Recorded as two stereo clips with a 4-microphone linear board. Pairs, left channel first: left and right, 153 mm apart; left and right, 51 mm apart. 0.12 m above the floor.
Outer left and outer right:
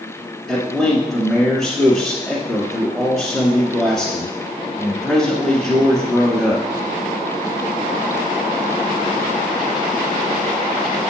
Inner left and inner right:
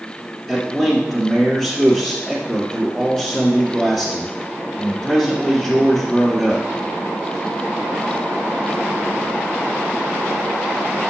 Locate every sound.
0.5 s a man speaking: centre (ahead or behind), 1.4 m